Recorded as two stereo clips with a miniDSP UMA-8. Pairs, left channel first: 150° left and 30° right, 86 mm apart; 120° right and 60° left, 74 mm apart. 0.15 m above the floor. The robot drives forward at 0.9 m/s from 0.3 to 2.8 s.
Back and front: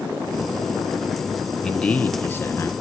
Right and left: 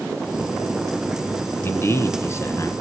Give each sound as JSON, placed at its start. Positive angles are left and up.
{"t": 1.6, "sound": "a man speaking", "azimuth_deg": -130, "distance_m": 1.3}